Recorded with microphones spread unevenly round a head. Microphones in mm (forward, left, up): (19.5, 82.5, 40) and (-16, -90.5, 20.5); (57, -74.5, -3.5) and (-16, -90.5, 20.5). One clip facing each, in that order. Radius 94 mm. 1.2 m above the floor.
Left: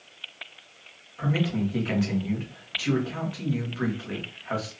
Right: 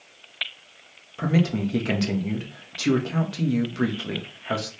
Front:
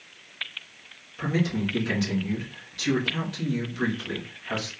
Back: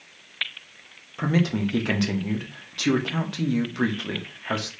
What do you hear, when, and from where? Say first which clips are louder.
1.2 s a man speaking: right 3 dB, back 3 dB; 140° right, 1.3 m